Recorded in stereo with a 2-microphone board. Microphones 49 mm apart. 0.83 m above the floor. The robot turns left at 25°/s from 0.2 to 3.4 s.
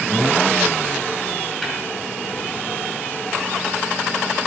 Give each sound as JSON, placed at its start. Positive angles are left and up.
{"t": 1.6, "sound": "tapping", "side_deg": 5, "distance_m": 4.0}